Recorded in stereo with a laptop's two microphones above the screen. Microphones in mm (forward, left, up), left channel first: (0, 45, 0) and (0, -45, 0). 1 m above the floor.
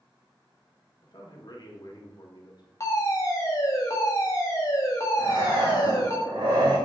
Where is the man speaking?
50° left (ahead or behind), 1.5 m.